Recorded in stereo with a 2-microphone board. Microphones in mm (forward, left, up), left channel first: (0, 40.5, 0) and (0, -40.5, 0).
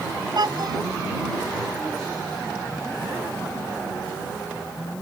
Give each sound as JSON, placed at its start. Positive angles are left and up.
{"t": 0.3, "sound": "a child speaking", "side_deg": -60}